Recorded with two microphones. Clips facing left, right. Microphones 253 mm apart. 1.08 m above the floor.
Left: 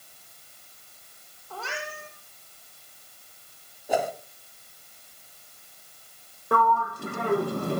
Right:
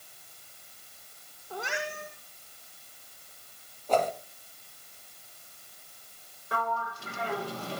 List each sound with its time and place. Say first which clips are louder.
1.5 s a cat meowing: right 2 dB; 15° right (ahead or behind), 6 m
3.9 s a whoosh: even; 10° left (ahead or behind), 2.5 m
6.5 s a sliding door: left 9 dB; 55° left (ahead or behind), 1.0 m